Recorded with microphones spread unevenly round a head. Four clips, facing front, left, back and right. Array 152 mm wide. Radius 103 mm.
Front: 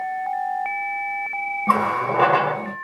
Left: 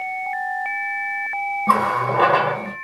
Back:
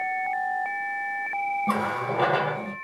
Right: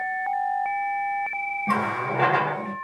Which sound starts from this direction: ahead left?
A running tap, at 1.7 s.